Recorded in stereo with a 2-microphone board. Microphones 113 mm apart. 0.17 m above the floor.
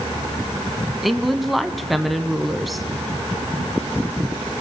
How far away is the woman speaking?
About 1.1 m.